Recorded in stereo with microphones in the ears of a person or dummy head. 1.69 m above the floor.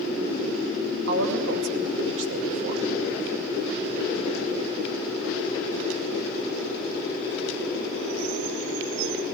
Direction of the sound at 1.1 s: 75° right (ahead or behind).